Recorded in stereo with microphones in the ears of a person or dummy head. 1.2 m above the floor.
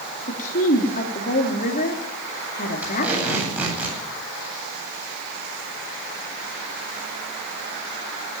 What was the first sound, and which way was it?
A woman speaking, 45° left (ahead or behind).